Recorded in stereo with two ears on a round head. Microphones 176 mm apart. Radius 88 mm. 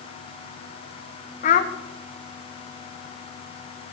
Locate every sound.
1.4 s a child speaking: 40° left (ahead or behind), 0.6 m